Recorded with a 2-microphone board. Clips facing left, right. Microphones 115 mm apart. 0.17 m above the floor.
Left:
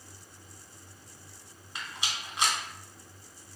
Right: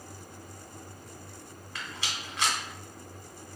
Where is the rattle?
15° left (ahead or behind), 1.2 m.